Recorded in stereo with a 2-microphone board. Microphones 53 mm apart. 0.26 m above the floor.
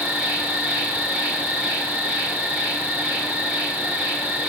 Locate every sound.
0.0 s an insect: 20° right (ahead or behind), 1.9 m